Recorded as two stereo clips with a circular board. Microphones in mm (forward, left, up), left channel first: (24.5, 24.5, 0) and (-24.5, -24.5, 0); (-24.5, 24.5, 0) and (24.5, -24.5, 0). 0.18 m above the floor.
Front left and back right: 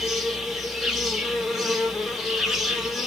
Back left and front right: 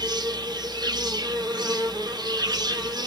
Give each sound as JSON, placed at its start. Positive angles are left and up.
{"t": 0.0, "sound": "an insect", "azimuth_deg": -50, "distance_m": 0.9}